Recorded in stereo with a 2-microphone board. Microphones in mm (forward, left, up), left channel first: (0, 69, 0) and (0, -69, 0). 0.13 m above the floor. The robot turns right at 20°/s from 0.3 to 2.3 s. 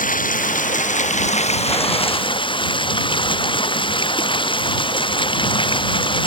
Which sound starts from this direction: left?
Running water, at 0.0 s.